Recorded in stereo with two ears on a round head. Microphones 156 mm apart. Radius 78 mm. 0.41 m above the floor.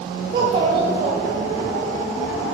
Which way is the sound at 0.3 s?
35° right (ahead or behind).